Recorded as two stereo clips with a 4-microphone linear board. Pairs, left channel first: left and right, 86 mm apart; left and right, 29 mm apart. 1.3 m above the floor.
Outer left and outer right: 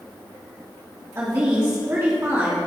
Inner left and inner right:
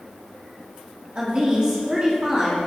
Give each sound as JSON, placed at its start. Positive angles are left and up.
{"t": 1.1, "sound": "a woman speaking", "side_deg": -30, "distance_m": 2.5}